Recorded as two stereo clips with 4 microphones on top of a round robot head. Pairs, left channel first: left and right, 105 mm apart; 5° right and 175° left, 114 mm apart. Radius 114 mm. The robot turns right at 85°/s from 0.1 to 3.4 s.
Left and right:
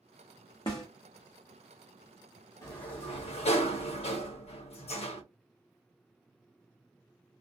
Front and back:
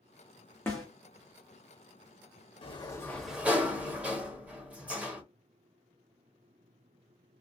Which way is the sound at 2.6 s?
30° left.